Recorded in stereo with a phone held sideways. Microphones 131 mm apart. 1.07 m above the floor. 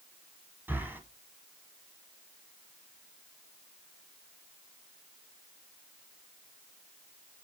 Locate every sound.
0.7 s breathing: 15° right (ahead or behind), 1.1 m